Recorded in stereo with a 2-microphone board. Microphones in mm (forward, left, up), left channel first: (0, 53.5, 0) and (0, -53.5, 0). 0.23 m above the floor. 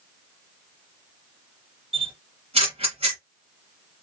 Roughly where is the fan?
No fan in this recording.